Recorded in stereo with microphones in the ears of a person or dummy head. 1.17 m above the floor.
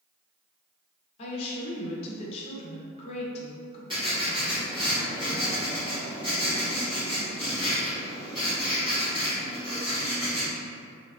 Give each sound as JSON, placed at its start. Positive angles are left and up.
{"t": 1.2, "sound": "a woman speaking", "side_deg": 35, "distance_m": 0.6}
{"t": 3.9, "sound": "writing", "side_deg": -20, "distance_m": 1.0}